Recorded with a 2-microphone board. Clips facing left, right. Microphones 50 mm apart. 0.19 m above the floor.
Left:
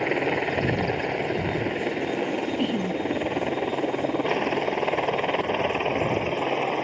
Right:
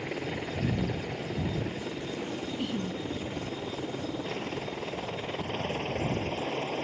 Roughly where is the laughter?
Left.